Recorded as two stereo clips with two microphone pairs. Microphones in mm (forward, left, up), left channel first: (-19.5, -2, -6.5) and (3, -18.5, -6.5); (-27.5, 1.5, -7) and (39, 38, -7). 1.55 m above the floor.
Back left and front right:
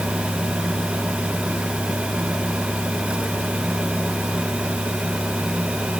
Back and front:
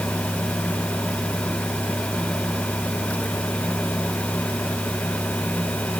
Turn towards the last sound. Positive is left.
No sound to turn to.